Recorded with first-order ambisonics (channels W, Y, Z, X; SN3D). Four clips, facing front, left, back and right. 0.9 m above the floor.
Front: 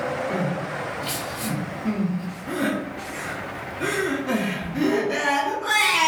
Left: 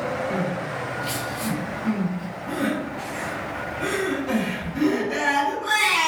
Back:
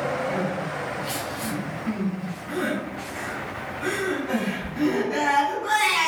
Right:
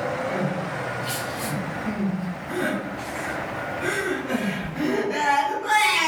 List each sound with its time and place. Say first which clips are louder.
0.3 s crying: even, front 1 dB; 20° left, 0.8 m